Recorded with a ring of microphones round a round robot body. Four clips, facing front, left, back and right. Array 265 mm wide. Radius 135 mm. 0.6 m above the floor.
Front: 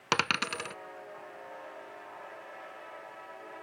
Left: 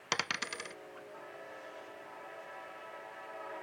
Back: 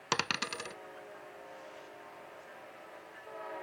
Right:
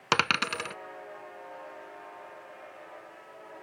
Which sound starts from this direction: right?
A dropped coin, at 0.1 s.